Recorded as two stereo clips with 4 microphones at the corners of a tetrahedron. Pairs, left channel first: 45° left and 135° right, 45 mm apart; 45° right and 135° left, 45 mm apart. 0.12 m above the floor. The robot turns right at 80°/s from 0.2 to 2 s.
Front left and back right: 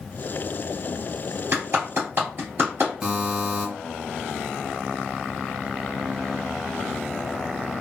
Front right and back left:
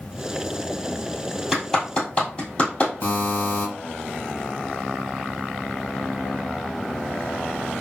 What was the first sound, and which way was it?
A clap, 145° right.